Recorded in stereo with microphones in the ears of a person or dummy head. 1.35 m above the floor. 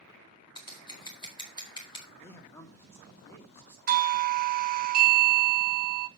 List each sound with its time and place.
0.6 s scissors: 30° left (ahead or behind), 1.9 m
2.2 s a man speaking: 15° left (ahead or behind), 2.5 m
3.9 s a doorbell: 45° right (ahead or behind), 0.9 m